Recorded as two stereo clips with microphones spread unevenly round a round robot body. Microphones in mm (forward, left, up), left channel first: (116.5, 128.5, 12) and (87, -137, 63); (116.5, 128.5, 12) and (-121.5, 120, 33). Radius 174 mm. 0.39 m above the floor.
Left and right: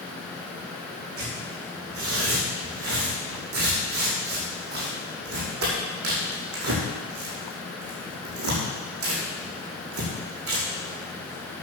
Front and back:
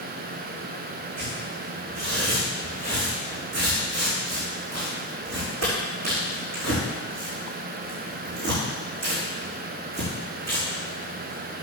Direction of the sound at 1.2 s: 65° right.